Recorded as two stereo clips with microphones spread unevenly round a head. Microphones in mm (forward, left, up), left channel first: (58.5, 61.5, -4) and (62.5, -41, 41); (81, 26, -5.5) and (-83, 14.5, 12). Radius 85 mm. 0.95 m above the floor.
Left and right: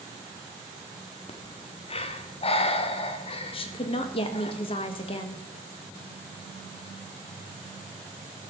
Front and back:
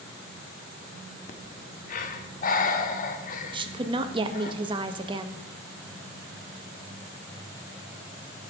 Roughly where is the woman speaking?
Behind left.